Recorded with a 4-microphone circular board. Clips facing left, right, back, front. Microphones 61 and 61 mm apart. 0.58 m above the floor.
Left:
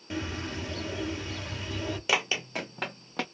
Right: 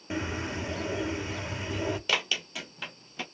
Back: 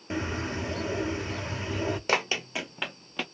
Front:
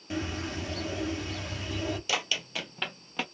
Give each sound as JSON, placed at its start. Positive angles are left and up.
{"t": 0.1, "sound": "a bird", "azimuth_deg": -145, "distance_m": 0.8}
{"t": 2.1, "sound": "running footsteps", "azimuth_deg": 160, "distance_m": 0.8}